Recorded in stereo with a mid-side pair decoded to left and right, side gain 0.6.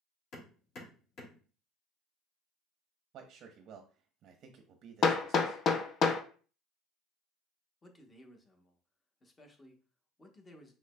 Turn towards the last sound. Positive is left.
turn(degrees=25)